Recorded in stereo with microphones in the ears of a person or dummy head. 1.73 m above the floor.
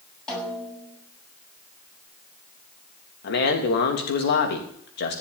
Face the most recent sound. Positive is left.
turn(degrees=60)  # may be behind; listen again after turning